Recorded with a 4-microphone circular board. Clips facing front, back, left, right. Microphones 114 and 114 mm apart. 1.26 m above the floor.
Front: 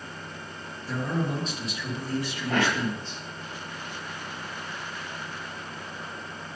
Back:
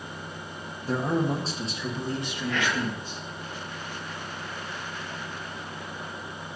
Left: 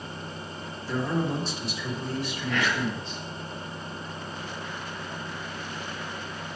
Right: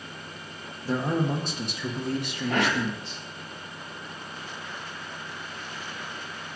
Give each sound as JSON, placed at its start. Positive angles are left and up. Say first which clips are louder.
{"t": 0.8, "sound": "a man speaking", "louder": "back 4 dB, right 2 dB", "azimuth_deg": -135, "distance_m": 1.3}
{"t": 2.5, "sound": "whispering", "louder": "front 3 dB, right 3 dB", "azimuth_deg": -45, "distance_m": 0.8}